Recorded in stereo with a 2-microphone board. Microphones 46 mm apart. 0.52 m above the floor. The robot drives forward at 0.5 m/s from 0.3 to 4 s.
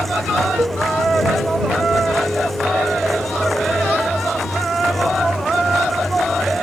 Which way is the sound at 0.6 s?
75° right (ahead or behind).